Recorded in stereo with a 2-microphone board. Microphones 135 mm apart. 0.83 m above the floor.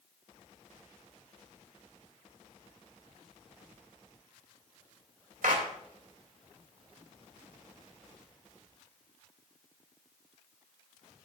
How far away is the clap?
About 2.5 m.